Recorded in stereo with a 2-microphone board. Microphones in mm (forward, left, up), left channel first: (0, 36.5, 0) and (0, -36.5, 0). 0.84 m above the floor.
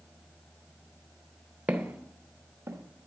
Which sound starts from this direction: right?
Footsteps, at 1.7 s.